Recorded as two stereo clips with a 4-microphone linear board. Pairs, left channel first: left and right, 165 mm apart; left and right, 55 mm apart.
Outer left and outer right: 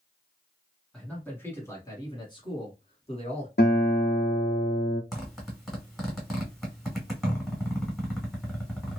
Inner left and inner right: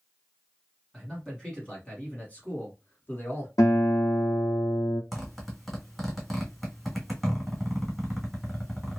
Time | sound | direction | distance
0.9 | a man speaking | 5° left (ahead or behind) | 1.3 m
3.6 | a guitar | 80° left | 1.1 m
5.1 | a zipper | centre (ahead or behind) | 1.6 m